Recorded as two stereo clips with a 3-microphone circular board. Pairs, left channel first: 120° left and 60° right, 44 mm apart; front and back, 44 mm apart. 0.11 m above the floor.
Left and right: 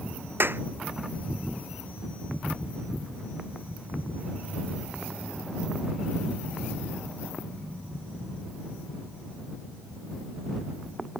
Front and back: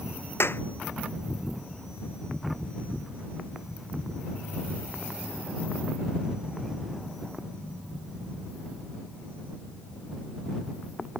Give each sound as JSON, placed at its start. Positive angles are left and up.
{"t": 0.4, "sound": "a clap", "azimuth_deg": -25}